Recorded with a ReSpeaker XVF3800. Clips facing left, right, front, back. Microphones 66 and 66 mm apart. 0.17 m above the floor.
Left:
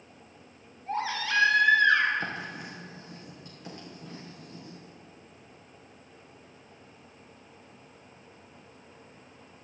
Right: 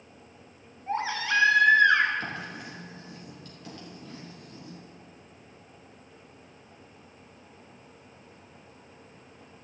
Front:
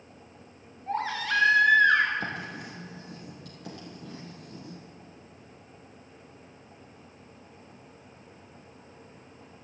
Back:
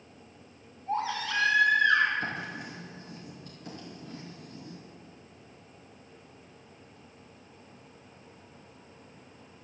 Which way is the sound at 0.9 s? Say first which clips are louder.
Right 2 dB, front 2 dB; 25° right.